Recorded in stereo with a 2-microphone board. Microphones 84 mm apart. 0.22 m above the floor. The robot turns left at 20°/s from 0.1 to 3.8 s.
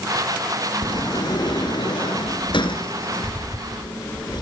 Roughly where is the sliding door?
Behind left.